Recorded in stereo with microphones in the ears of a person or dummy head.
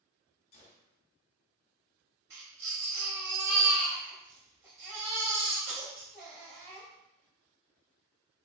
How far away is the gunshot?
About 0.6 m.